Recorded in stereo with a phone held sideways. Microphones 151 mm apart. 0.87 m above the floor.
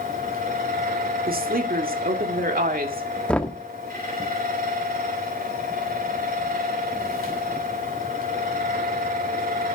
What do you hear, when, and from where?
0.0 s a fan: 75° right (ahead or behind), 2.5 m
1.3 s a woman speaking: 75° right (ahead or behind), 2.0 m
3.3 s knocking: 10° left (ahead or behind), 1.2 m